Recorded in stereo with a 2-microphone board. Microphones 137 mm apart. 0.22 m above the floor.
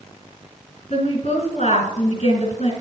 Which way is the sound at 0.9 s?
50° left (ahead or behind).